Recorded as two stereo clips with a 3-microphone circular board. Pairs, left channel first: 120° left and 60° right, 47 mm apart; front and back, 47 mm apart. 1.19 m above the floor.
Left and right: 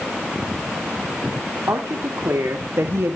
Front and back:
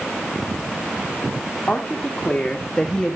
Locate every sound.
1.7 s a woman speaking: 70° right, 2.5 m; by 3.2 s 85° right, 1.4 m